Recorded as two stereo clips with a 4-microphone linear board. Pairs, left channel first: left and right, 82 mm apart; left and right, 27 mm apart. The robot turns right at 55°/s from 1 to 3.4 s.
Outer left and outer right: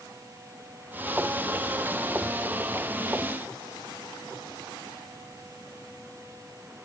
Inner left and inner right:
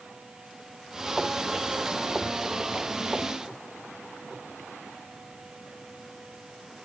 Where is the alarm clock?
No alarm clock in this recording.